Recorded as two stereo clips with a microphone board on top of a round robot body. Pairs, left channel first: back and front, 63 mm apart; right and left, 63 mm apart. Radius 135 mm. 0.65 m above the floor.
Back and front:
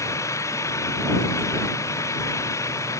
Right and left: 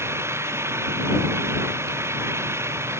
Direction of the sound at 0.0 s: 140° left.